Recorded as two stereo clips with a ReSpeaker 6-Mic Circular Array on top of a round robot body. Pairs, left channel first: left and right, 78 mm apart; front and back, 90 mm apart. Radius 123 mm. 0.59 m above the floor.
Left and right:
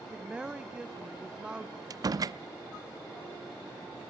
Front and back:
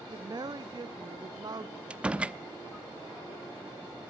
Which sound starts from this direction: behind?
A woman speaking, at 0.1 s.